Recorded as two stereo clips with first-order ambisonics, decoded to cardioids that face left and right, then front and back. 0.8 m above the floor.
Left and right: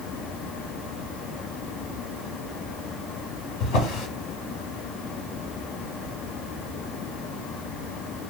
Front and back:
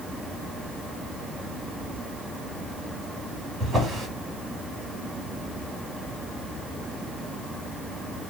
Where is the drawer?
105° left, 1.8 m.